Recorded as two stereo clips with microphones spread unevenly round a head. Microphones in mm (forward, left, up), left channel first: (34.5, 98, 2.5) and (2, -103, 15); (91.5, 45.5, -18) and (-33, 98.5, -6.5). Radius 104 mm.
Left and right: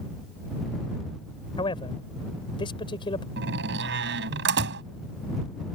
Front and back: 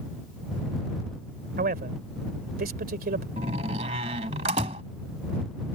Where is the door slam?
140° right.